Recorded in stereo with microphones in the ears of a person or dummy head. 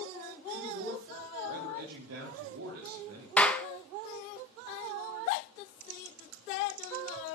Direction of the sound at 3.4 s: 5° left (ahead or behind).